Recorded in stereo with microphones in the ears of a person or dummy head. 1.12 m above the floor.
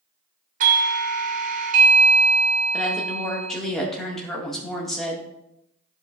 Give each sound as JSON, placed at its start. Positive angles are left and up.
{"t": 0.6, "sound": "a doorbell", "side_deg": -45, "distance_m": 0.6}
{"t": 2.7, "sound": "a woman speaking", "side_deg": 0, "distance_m": 1.4}